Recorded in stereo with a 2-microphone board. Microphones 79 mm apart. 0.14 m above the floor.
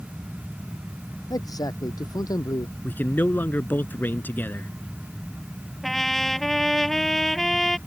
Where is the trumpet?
5° left (ahead or behind).